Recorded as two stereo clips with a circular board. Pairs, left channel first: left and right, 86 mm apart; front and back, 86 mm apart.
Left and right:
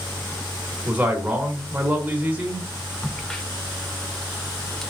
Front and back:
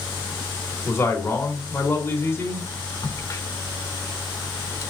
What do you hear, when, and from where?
0.8 s a man speaking: 30° right, 1.4 m
3.0 s a crack: 10° left, 0.7 m